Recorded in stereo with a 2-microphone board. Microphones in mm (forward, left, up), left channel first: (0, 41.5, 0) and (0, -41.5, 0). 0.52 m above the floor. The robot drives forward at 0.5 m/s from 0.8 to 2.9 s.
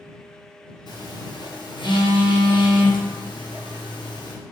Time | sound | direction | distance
0.9 | a phone buzzing | 60° left (ahead or behind) | 2.5 m